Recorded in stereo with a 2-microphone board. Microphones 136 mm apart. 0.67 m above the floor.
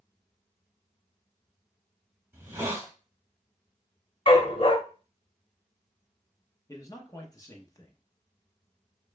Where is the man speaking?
25° left (ahead or behind), 0.7 m.